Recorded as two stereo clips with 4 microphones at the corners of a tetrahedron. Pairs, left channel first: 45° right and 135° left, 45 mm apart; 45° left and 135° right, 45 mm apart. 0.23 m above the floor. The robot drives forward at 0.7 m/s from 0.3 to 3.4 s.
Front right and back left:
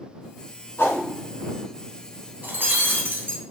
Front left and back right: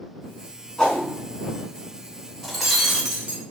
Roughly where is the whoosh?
Ahead right.